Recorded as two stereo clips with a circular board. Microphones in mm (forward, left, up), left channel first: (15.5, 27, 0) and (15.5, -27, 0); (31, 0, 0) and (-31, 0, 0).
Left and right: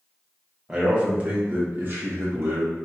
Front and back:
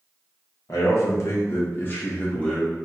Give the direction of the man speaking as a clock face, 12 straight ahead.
1 o'clock.